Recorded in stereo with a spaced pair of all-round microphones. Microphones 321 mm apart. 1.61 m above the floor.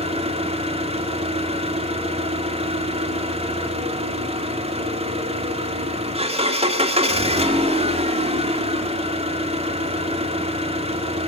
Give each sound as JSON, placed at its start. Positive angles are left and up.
{"t": 0.0, "sound": "an engine running", "side_deg": -20, "distance_m": 2.5}